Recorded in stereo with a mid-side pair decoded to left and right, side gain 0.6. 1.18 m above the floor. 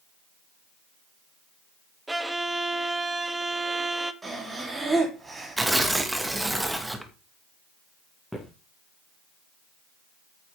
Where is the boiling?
I don't hear boiling.